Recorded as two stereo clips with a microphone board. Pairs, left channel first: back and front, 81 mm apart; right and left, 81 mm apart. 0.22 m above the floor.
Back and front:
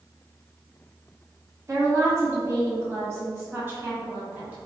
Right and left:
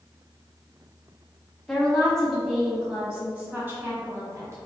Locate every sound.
1.7 s a woman speaking: 15° right, 1.9 m; by 4.6 s 65° left, 1.9 m